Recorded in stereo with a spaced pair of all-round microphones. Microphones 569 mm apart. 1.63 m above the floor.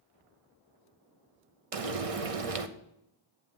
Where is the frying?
70° right (ahead or behind), 0.9 m.